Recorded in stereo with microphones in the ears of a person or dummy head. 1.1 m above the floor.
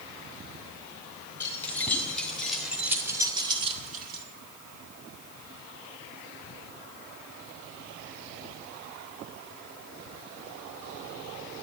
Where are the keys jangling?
15° left (ahead or behind), 4.5 m; by 4.2 s 60° right (ahead or behind), 1.9 m.